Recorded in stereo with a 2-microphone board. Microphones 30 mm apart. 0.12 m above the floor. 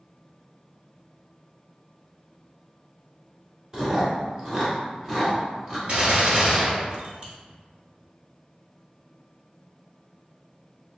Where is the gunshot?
45° right (ahead or behind), 1.2 m.